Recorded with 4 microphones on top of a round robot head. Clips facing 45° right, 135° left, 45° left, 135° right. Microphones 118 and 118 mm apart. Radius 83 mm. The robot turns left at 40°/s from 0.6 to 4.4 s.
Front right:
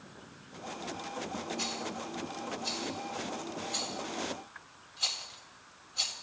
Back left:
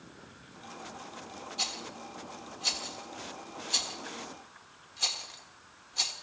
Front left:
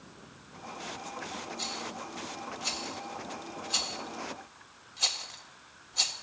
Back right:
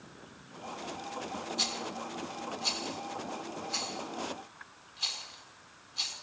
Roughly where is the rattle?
Behind right.